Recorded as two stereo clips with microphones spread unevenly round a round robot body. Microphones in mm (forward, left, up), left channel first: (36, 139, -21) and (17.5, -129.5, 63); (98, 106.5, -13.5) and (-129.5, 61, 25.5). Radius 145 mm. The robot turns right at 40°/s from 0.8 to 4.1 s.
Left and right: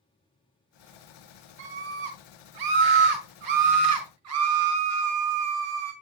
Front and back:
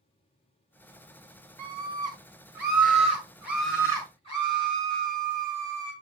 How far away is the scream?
About 1.9 m.